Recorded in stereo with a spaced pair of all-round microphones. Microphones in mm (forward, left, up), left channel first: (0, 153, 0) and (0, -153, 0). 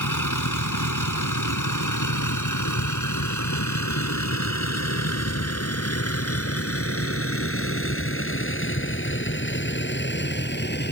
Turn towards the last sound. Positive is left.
turn(degrees=35)  # may be behind; listen again after turning